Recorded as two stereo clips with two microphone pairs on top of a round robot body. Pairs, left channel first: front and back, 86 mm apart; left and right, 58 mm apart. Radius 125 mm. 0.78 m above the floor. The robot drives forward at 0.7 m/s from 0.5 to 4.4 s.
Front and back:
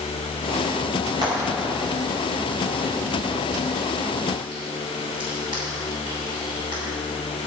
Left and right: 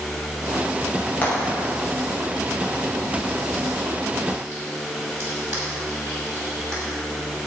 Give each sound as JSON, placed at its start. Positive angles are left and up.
{"t": 1.2, "sound": "frying", "azimuth_deg": 145, "distance_m": 5.5}